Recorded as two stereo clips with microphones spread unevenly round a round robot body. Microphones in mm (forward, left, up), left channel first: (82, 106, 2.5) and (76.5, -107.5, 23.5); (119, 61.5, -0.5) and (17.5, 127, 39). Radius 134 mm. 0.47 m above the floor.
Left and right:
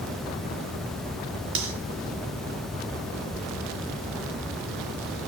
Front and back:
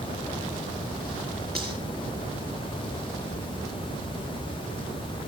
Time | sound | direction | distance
1.6 | cutlery clinking | 120° right | 4 m